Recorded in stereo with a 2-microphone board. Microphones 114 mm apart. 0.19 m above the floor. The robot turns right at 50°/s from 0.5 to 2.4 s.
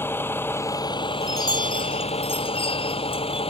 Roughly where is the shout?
No shout in this recording.